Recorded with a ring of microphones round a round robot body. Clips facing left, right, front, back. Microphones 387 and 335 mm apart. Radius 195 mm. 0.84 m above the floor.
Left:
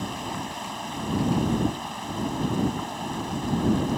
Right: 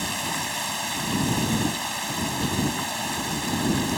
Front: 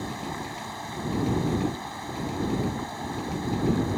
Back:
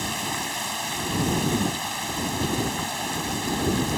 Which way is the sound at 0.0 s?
130° right.